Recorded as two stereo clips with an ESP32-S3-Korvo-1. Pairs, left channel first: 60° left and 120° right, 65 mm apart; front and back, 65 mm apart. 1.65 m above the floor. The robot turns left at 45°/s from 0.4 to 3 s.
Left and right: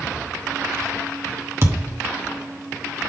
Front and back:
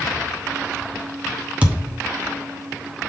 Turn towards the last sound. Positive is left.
turn(degrees=175)